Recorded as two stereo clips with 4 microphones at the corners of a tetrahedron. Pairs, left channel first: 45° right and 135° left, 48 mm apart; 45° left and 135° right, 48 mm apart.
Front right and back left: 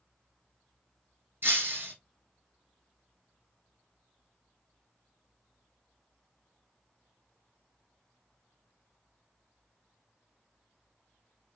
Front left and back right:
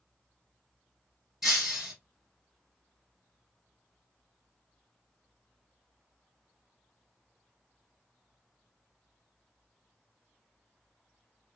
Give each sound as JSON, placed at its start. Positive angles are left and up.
{"t": 1.4, "sound": "breaking glass", "azimuth_deg": 145, "distance_m": 1.8}